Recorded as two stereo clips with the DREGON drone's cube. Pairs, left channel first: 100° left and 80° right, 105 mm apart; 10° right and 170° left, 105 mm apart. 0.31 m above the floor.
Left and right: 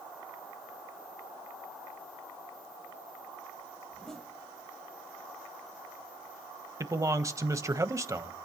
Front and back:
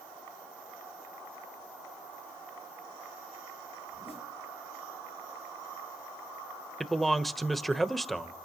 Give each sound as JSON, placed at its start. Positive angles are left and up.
{"t": 3.9, "sound": "a zipper", "azimuth_deg": 15, "distance_m": 7.0}
{"t": 6.8, "sound": "a man speaking", "azimuth_deg": -100, "distance_m": 1.2}